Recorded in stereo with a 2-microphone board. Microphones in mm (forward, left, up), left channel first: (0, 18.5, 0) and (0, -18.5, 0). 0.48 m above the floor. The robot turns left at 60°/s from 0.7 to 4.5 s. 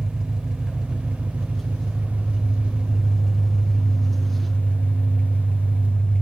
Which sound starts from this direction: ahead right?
An engine running, at 0.0 s.